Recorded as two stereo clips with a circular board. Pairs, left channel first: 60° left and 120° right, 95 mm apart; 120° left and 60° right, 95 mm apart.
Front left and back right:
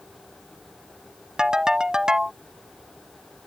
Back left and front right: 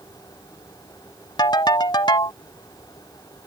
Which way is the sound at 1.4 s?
160° left.